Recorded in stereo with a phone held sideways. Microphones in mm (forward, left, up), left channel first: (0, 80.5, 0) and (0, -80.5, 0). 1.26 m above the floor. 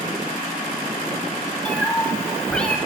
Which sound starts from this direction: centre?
A cat meowing, at 1.6 s.